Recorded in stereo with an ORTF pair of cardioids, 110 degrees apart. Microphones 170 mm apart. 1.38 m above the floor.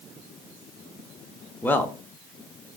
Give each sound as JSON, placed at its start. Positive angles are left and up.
{"t": 1.6, "sound": "a man speaking", "azimuth_deg": 10, "distance_m": 0.6}